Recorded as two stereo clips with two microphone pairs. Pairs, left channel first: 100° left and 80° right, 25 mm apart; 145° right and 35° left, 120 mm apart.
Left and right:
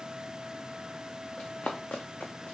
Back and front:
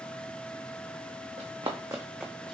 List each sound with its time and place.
1.4 s running footsteps: 60° left, 1.3 m; by 2.5 s 140° left, 0.9 m